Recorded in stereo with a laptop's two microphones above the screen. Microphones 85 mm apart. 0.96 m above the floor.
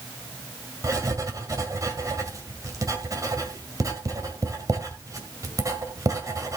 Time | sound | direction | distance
0.8 | writing | 40° right (ahead or behind) | 2.0 m